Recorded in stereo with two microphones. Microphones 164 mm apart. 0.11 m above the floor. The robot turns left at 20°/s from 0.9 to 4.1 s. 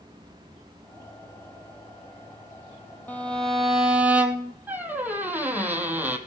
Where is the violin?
10° left (ahead or behind), 1.2 m; by 4.5 s 10° right (ahead or behind), 1.2 m.